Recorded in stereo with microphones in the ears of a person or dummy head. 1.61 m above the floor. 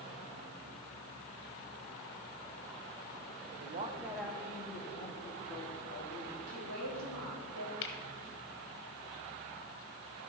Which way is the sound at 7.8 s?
70° left (ahead or behind).